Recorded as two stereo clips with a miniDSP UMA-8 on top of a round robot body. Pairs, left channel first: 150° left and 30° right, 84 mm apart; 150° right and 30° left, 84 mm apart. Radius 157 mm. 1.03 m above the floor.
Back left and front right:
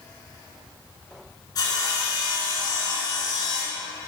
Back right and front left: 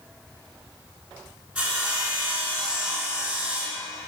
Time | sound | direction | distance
1.6 | sawing | 105° left | 3.5 m